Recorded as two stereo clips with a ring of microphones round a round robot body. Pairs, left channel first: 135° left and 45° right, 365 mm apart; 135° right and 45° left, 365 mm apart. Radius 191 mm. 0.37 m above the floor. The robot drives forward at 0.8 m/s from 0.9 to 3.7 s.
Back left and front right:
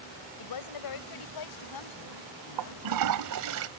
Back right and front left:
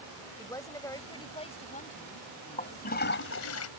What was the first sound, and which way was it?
A woman speaking, 145° left.